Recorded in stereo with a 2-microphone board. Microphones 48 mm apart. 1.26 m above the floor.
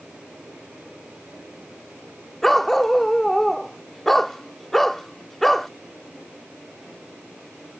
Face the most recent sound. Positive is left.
turn(degrees=5)  # may be behind; listen again after turning